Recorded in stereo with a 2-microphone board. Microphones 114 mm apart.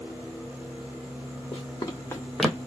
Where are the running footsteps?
45° left (ahead or behind), 1.0 m; by 2.6 s 20° right (ahead or behind), 0.6 m.